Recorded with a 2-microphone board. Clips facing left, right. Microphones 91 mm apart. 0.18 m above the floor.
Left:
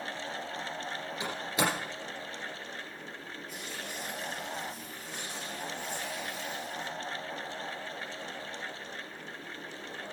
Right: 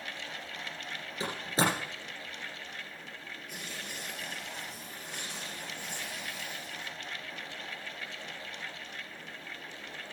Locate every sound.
1.2 s a door slam: 35° right (ahead or behind), 6.5 m
3.5 s tearing paper: 65° right (ahead or behind), 6 m